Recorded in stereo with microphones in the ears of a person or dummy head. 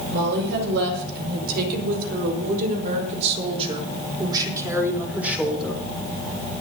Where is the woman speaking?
70° right (ahead or behind), 5.5 m; by 5.8 s centre (ahead or behind), 3.5 m.